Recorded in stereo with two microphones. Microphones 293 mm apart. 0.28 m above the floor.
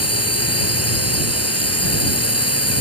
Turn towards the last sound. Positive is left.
turn(degrees=55)  # may be behind; listen again after turning